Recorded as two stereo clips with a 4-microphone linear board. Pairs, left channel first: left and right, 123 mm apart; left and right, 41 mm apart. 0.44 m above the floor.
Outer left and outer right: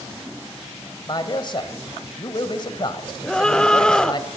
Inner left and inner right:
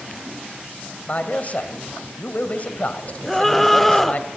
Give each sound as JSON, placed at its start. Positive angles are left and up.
{"t": 1.1, "sound": "a man speaking", "side_deg": 40, "distance_m": 1.9}
{"t": 3.2, "sound": "a scream", "side_deg": 5, "distance_m": 1.2}